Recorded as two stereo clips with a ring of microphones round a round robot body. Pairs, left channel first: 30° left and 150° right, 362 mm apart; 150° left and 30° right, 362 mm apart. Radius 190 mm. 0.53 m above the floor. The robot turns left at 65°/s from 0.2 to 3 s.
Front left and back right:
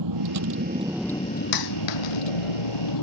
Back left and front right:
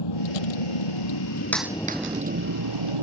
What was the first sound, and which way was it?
A vehicle, 175° left.